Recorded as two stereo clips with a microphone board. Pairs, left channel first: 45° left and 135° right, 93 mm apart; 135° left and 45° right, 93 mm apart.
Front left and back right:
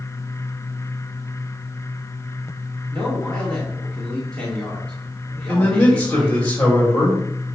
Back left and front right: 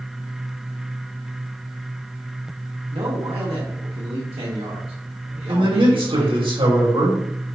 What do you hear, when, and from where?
2.9 s a man speaking: 35° right, 2 m
5.5 s a man speaking: 30° right, 4 m